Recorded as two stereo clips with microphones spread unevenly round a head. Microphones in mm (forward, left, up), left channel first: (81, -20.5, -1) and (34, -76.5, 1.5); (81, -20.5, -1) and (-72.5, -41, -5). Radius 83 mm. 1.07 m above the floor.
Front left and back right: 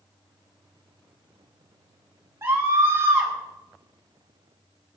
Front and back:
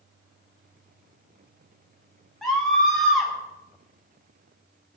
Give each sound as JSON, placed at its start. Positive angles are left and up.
{"t": 2.4, "sound": "a scream", "azimuth_deg": -80, "distance_m": 9.5}